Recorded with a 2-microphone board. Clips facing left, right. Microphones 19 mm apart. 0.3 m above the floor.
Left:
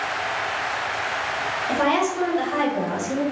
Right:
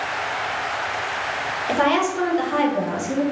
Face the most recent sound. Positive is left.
turn(degrees=10)  # may be behind; listen again after turning